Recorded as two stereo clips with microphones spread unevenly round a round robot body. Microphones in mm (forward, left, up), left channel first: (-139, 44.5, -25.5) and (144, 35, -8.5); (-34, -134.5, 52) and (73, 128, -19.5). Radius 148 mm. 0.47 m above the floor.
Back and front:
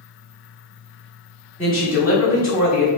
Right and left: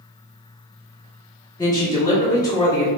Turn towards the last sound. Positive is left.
turn(degrees=-20)